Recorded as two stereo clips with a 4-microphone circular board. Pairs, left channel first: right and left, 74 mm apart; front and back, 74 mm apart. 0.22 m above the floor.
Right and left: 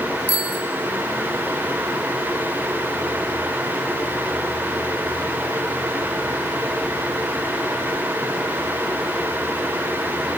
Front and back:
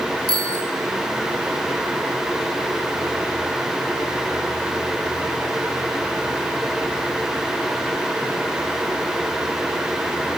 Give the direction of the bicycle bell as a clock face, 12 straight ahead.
7 o'clock.